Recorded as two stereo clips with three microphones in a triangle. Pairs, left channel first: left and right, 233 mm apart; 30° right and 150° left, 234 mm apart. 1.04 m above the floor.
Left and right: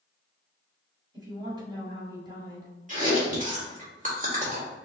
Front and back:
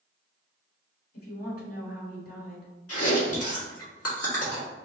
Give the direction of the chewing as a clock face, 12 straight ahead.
1 o'clock.